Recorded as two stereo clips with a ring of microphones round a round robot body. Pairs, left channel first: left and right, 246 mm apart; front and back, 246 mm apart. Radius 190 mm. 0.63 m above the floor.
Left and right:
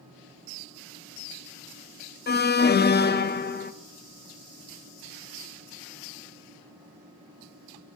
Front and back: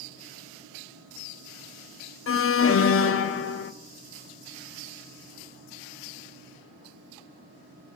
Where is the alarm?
35° left, 0.6 m.